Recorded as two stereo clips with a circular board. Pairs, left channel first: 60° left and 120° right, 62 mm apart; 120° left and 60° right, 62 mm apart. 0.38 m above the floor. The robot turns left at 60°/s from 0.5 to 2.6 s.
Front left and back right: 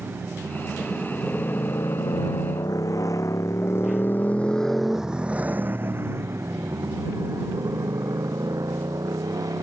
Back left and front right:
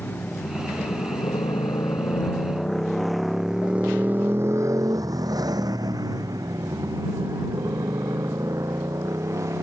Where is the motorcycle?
Straight behind; by 9.6 s 95° right.